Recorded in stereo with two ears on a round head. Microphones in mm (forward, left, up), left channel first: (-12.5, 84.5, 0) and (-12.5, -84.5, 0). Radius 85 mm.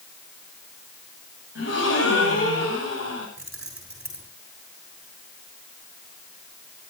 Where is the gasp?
65° left (ahead or behind), 8 m.